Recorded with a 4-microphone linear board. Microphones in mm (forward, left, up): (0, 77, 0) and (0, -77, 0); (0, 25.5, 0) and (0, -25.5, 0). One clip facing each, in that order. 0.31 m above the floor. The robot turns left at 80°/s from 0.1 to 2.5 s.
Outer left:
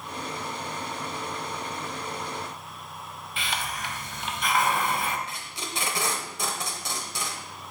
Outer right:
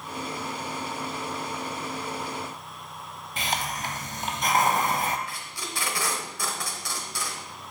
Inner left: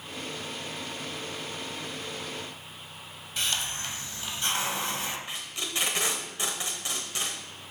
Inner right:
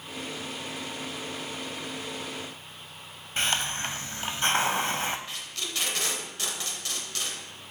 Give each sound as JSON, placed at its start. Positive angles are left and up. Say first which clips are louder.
{"t": 3.4, "sound": "a hiss", "louder": "outer right 3 dB, inner right 4 dB", "side_deg": -45, "distance_m": 0.5}
{"t": 5.3, "sound": "tape being pulled", "louder": "outer left 1 dB, inner left 1 dB", "side_deg": 25, "distance_m": 0.9}